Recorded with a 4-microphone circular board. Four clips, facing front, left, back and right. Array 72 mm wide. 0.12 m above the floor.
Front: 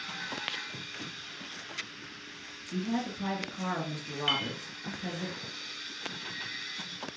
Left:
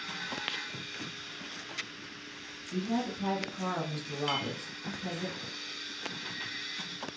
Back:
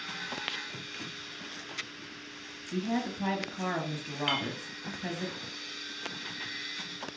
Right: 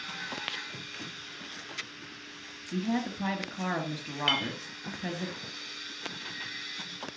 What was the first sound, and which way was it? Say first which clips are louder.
A woman speaking: right 1 dB, back 1 dB; 100° right.